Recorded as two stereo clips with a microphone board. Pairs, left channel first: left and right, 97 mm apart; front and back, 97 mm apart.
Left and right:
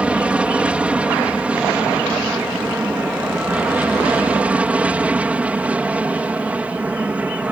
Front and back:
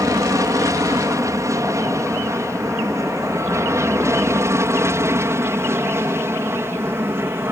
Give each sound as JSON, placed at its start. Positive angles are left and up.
{"t": 0.0, "sound": "an aircraft", "azimuth_deg": -160}